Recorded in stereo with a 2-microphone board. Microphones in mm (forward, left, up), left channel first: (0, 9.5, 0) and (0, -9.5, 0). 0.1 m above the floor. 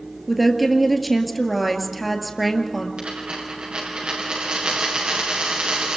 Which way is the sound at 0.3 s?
Centre (ahead or behind).